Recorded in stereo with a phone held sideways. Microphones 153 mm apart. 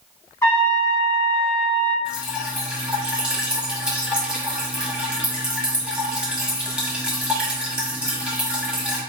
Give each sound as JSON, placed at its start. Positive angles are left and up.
{"t": 0.4, "sound": "a trumpet", "side_deg": 20, "distance_m": 1.4}
{"t": 2.0, "sound": "dripping", "side_deg": -5, "distance_m": 0.8}